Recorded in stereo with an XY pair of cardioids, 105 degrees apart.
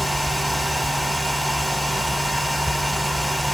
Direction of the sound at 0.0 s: 10° right.